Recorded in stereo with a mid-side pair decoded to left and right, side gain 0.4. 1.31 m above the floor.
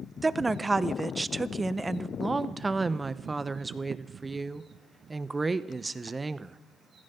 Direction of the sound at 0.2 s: 20° right.